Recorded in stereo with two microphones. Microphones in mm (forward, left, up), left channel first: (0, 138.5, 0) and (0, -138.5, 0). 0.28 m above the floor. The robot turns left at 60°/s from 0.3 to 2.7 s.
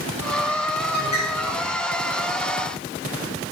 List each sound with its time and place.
0.9 s a bird: 110° left, 4.5 m; by 1.6 s 70° left, 4.5 m